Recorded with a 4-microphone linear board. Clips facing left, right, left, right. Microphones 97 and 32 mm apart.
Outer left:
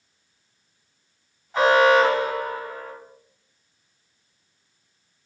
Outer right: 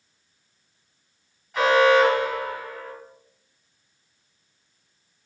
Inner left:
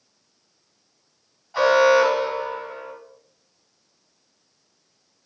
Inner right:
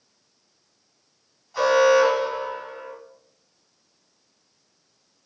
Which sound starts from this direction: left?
An alarm, at 1.5 s.